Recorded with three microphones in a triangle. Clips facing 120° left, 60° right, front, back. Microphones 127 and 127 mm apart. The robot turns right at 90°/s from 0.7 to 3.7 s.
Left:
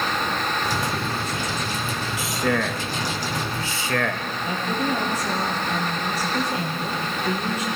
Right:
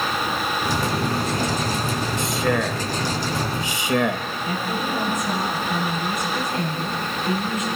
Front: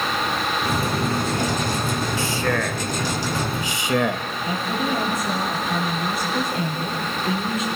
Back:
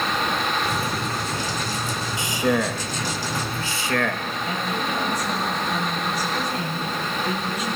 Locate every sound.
2.2 s a man speaking: 165° right, 0.8 m; by 4.2 s 25° right, 0.8 m
4.5 s a woman speaking: 65° left, 8 m